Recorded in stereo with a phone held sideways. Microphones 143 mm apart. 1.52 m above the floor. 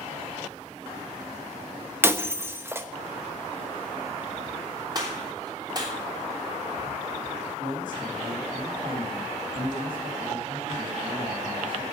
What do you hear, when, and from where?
2.0 s breaking glass: 20° right (ahead or behind), 0.9 m
5.0 s a gunshot: 30° right (ahead or behind), 3 m
7.6 s a man speaking: 85° right, 3 m